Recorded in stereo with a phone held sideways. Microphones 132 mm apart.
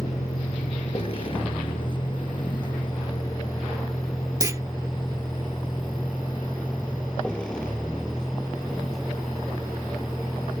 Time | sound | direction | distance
0.0 | a vehicle | 55° left (ahead or behind) | ?
4.4 | a clunk | 25° right (ahead or behind) | ?